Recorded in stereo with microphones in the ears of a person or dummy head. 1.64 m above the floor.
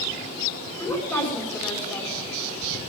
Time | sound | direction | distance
0.8 | a woman speaking | 10° left (ahead or behind) | 5 m